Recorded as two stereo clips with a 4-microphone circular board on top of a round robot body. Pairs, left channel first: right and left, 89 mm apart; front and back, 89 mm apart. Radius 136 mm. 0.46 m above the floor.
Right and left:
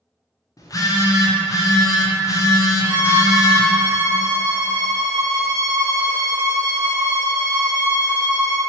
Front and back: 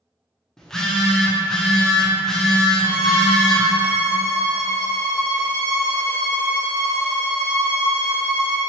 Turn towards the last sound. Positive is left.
turn(degrees=45)